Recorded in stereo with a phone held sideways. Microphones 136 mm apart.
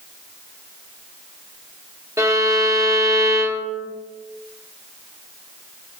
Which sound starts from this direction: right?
A violin, at 2.2 s.